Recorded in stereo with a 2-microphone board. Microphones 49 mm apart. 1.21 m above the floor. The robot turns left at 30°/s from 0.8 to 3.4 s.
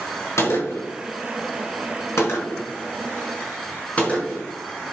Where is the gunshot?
70° left (ahead or behind), 4 m; by 4.4 s 25° left (ahead or behind), 4 m.